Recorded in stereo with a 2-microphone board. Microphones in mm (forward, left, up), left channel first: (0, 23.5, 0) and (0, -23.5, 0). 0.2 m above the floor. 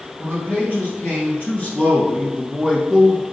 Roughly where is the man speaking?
Left.